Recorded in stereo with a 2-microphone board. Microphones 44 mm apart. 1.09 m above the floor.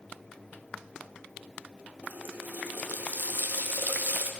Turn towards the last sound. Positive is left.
turn(degrees=-45)  # may be behind; listen again after turning